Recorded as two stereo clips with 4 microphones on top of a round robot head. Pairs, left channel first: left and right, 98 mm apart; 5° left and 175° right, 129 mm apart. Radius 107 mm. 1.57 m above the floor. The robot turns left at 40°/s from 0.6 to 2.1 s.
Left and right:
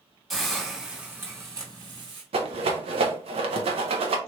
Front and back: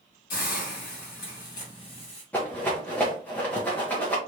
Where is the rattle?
75° right, 0.9 m.